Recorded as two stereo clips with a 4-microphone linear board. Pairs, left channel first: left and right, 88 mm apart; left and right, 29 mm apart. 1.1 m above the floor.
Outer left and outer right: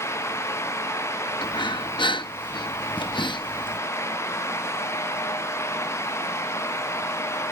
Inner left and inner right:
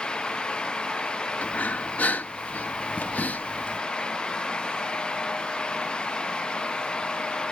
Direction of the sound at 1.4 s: 65° left (ahead or behind).